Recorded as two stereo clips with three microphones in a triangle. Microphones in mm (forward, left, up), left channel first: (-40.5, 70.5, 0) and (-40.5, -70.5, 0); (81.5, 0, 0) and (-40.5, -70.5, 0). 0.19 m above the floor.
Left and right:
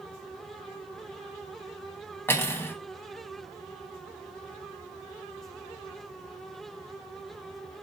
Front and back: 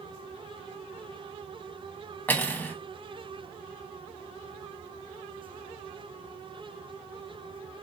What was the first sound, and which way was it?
Cutlery clinking, 75° left.